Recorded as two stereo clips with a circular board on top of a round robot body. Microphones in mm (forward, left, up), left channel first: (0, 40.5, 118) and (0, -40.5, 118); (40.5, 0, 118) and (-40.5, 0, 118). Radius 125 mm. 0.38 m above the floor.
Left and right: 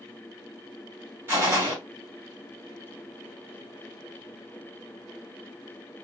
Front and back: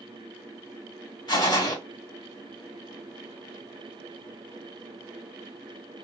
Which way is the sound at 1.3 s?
30° right.